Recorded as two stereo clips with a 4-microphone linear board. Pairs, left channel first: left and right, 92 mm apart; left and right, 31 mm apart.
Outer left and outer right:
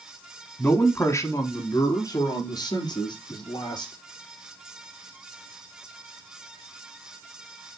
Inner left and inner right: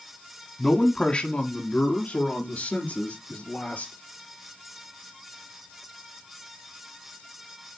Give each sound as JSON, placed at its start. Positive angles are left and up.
{"t": 0.6, "sound": "a man speaking", "side_deg": 20, "distance_m": 1.1}